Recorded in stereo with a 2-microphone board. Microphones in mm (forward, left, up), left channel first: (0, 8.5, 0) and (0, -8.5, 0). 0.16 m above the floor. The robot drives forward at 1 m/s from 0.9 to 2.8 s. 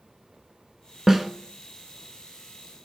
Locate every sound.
1.1 s a snare drum: 20° right (ahead or behind), 1.1 m; by 1.3 s 25° right (ahead or behind), 1.0 m